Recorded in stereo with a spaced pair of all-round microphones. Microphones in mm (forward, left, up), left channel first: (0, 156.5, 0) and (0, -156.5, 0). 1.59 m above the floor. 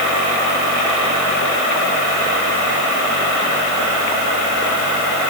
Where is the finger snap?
No finger snap in this recording.